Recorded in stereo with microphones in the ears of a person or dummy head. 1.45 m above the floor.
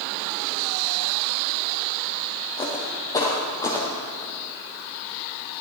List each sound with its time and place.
2.6 s footsteps: 20° left (ahead or behind), 3.5 m; by 4.3 s 15° left (ahead or behind), 2.5 m